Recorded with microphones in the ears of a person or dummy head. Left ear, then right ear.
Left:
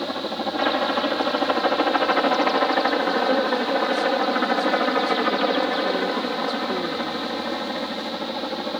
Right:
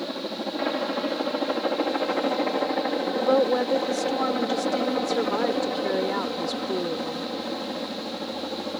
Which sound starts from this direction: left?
A helicopter, at 0.0 s.